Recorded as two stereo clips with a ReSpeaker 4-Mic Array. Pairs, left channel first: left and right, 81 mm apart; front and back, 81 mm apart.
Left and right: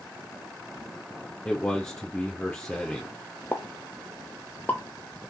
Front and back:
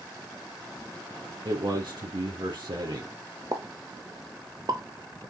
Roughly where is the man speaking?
Behind.